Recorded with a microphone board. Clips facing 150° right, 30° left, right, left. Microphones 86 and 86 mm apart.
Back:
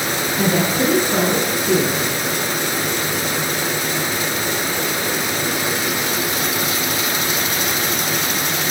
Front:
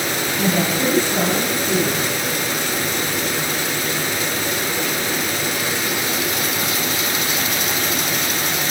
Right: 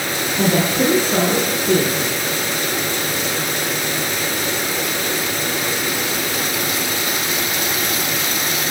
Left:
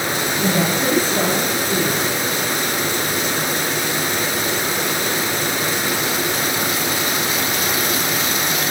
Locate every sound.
0.4 s a woman speaking: 100° right, 9.5 m